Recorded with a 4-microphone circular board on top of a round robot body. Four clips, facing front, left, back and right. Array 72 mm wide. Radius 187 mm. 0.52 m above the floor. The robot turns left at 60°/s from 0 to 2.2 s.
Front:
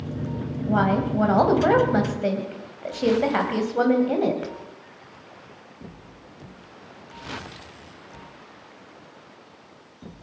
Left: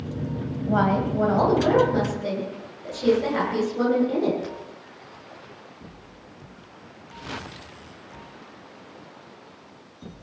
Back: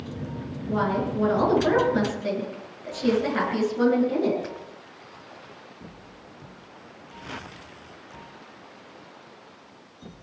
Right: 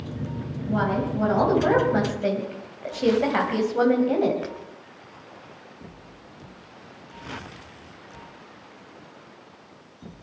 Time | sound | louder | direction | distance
0.7 | a woman speaking | left 3 dB, front 3 dB | 50° left | 3.5 m